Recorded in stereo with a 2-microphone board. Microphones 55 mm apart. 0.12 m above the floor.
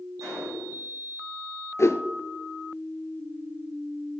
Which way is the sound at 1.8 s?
55° left (ahead or behind).